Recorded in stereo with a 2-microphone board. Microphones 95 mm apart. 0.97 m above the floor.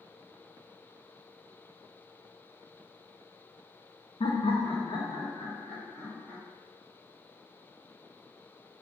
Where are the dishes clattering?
No dishes clattering in this recording.